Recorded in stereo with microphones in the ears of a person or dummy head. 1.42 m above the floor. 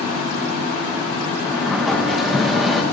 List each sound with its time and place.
1.4 s a sliding door: centre (ahead or behind), 0.9 m